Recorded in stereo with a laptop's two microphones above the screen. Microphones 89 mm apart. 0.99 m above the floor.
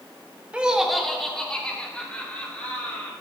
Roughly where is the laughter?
Centre.